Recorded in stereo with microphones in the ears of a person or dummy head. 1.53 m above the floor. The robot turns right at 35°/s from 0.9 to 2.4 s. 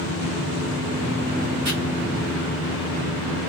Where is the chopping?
30° right (ahead or behind), 1.4 m.